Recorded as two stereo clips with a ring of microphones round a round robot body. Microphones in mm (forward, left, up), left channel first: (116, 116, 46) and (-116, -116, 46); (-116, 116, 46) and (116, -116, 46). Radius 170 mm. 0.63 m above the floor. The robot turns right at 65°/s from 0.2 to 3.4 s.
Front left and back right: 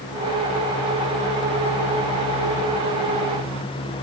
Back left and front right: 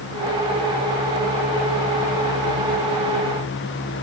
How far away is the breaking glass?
No breaking glass in this recording.